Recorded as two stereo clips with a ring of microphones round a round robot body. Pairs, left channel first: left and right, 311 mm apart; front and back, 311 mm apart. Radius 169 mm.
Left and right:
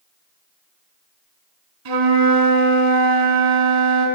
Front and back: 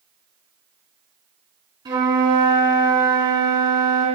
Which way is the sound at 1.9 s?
100° right.